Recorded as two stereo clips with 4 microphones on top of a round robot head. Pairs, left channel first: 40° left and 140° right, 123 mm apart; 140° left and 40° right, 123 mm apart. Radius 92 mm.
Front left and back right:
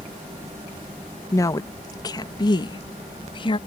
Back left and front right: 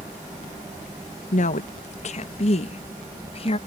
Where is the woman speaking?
110° left; by 3.6 s 90° left.